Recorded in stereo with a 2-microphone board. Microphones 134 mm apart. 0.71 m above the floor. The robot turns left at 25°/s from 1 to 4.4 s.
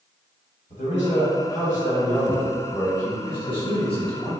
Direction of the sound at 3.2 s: 40° left (ahead or behind).